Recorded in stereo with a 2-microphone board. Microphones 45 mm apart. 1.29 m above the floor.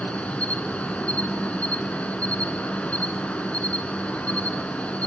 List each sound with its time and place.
0.0 s an insect: 30° left (ahead or behind), 1.4 m